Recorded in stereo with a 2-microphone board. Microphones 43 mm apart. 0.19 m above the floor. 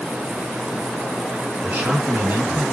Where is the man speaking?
40° right (ahead or behind), 2 m.